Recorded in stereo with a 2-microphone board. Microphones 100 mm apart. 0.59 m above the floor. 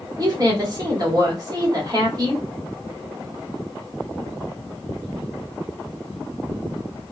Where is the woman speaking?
40° right (ahead or behind), 1.3 m.